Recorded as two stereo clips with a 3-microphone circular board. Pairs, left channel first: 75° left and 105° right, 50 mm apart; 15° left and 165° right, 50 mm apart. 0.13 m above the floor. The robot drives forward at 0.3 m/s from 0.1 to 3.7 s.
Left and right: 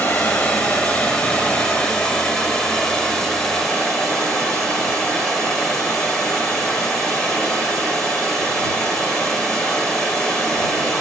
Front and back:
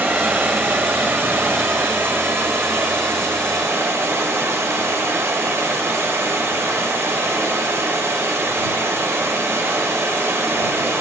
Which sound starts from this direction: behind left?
Running water, at 0.0 s.